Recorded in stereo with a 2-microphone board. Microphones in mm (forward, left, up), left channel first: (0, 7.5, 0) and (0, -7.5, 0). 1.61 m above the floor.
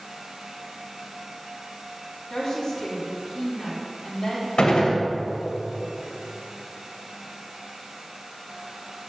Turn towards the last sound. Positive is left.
turn(degrees=85)